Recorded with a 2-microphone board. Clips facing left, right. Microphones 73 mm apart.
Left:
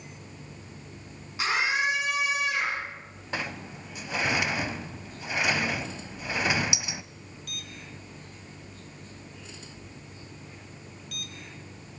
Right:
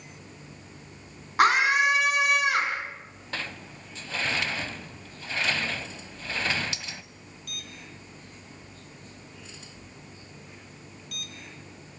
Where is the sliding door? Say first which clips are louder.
Left 3 dB; 15° left (ahead or behind), 0.6 m.